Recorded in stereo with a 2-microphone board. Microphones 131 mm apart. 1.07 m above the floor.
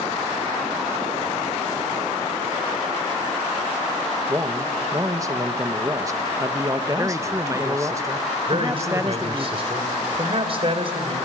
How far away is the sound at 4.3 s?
About 1.2 m.